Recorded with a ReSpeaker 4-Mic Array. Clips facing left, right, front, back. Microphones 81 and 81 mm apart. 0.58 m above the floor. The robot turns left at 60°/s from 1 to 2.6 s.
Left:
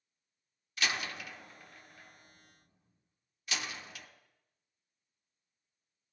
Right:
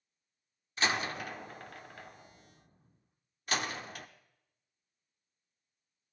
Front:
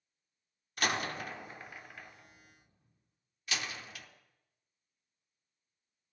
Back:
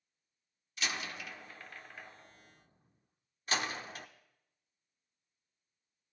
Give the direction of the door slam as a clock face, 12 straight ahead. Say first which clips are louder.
Right 4 dB, front 6 dB; 1 o'clock.